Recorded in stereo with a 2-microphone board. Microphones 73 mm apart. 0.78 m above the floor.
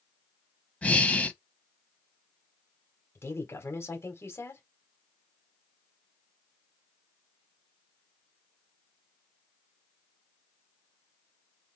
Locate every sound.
0.8 s breathing: 20° left (ahead or behind), 0.9 m
3.1 s a woman speaking: 35° left (ahead or behind), 2 m